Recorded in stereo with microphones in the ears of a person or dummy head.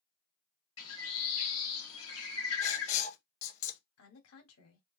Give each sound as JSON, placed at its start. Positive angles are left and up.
{"t": 0.8, "sound": "a bird", "side_deg": 85, "distance_m": 1.1}
{"t": 2.6, "sound": "writing", "side_deg": 30, "distance_m": 0.8}
{"t": 4.0, "sound": "a woman speaking", "side_deg": 75, "distance_m": 1.4}